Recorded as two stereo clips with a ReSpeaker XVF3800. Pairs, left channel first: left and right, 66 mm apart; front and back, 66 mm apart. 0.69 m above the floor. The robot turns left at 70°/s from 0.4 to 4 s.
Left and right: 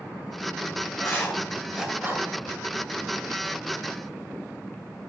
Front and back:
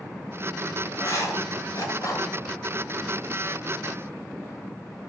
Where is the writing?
50° left, 1.8 m; by 2.3 s 50° right, 1.8 m.